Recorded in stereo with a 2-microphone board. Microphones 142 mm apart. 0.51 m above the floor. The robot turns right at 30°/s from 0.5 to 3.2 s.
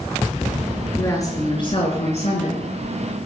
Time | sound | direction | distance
0.9 | a woman speaking | 20° left | 7.5 m